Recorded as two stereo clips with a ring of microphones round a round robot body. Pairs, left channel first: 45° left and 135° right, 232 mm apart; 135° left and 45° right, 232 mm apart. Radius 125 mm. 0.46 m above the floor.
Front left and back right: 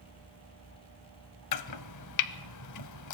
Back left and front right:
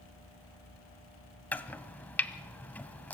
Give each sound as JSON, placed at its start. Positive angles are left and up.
{"t": 1.5, "sound": "chopping", "azimuth_deg": 50, "distance_m": 0.7}